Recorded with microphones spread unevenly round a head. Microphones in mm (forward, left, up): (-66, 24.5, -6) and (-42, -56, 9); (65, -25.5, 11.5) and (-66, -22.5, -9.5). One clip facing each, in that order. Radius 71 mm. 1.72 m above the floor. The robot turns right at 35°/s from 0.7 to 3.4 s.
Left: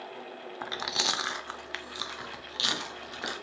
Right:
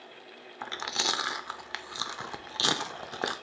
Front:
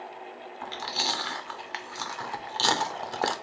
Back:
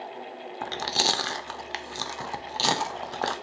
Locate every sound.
0.6 s chewing: 170° right, 0.5 m; by 3.3 s 75° right, 0.5 m